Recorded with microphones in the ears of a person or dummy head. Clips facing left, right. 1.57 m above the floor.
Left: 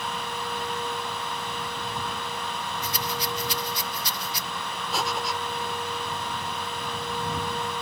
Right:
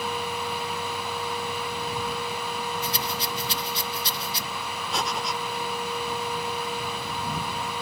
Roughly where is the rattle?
Right.